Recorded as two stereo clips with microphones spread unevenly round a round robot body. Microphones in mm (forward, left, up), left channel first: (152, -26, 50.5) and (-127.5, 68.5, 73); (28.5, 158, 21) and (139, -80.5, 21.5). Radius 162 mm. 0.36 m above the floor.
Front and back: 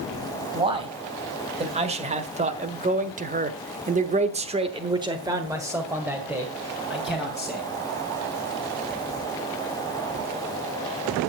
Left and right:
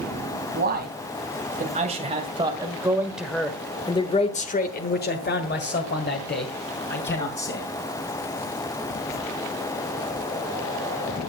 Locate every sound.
0.5 s a man speaking: 125° right, 2.5 m; by 7.7 s 70° left, 3 m